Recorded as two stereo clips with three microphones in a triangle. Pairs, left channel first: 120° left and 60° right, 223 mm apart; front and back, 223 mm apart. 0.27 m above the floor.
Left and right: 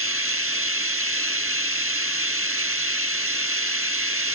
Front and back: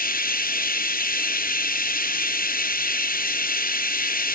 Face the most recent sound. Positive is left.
turn(degrees=-45)